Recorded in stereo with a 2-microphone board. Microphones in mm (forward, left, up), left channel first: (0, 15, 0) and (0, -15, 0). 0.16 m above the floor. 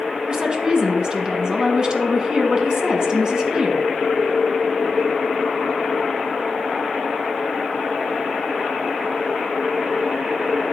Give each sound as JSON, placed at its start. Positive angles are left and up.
{"t": 0.3, "sound": "a woman speaking", "side_deg": -30, "distance_m": 1.3}